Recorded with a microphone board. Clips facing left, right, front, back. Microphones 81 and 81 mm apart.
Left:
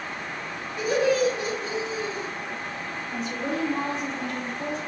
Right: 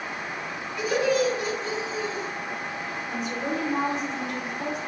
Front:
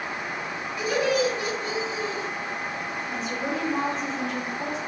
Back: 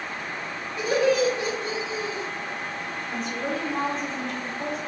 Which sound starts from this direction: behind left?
Laughter, at 0.8 s.